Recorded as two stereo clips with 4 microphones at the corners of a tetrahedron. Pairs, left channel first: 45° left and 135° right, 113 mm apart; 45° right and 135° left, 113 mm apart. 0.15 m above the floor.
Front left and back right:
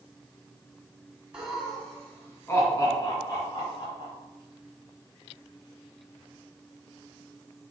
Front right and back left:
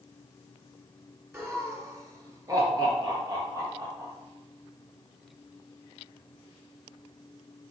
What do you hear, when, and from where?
1.3 s laughter: 160° left, 1.7 m; by 4.1 s 85° left, 3.5 m